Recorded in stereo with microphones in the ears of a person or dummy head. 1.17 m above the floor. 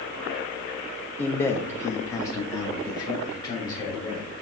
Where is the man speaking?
5° left (ahead or behind), 0.9 m; by 4.4 s 20° left (ahead or behind), 3.5 m.